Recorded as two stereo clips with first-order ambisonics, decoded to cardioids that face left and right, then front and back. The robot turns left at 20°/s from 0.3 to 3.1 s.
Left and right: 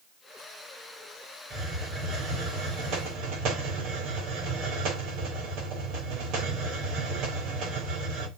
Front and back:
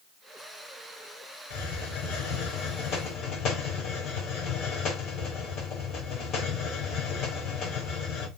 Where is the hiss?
20° right, 4.5 m; by 8.3 s 50° right, 4.5 m.